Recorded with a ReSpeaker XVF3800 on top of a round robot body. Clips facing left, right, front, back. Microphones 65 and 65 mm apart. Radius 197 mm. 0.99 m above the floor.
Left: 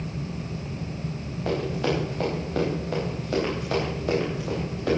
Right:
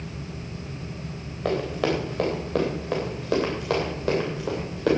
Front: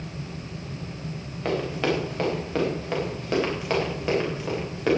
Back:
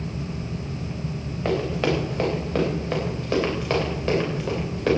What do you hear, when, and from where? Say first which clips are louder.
1.4 s running footsteps: right 1 dB, back 2 dB; 90° right, 7.5 m; by 4.9 s 85° right, 9.5 m